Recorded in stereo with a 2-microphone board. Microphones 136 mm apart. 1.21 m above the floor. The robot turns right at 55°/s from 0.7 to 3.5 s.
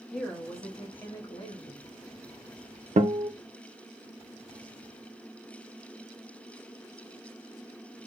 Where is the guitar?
60° right (ahead or behind), 0.5 m; by 3.3 s 40° right (ahead or behind), 0.5 m.